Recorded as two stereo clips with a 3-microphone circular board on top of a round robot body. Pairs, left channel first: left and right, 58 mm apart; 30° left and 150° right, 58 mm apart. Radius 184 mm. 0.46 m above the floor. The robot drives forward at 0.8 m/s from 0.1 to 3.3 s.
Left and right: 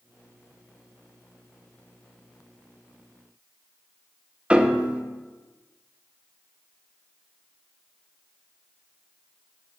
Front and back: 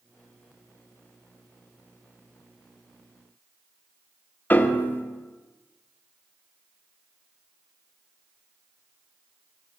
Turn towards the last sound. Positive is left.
turn(degrees=-20)